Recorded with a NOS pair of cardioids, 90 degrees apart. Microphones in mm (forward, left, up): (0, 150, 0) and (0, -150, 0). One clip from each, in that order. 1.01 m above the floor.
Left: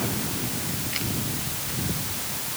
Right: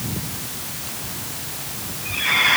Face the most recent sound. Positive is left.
No sound to turn to.